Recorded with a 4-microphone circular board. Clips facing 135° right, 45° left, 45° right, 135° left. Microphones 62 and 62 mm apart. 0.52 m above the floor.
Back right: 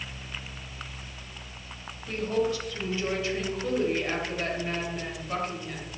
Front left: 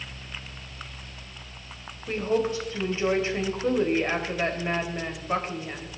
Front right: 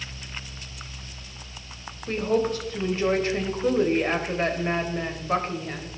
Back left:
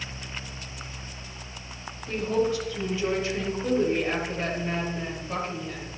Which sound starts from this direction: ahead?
A woman speaking, at 2.1 s.